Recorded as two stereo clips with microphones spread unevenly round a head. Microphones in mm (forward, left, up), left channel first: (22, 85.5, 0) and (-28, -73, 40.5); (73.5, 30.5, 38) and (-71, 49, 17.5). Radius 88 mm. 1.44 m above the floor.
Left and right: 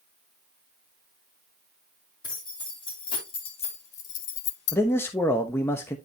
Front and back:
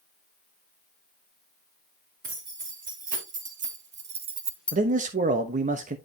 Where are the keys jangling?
140° left, 4 m; by 4.8 s 40° left, 0.6 m.